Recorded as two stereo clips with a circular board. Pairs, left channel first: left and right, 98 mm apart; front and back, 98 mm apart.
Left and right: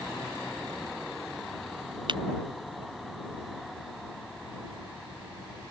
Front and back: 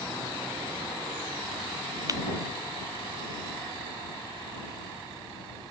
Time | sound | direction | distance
2.1 | breaking glass | 125° right | ?